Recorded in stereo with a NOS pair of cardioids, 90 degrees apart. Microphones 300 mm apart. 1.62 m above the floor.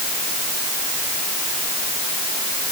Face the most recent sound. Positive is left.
No sound to turn to.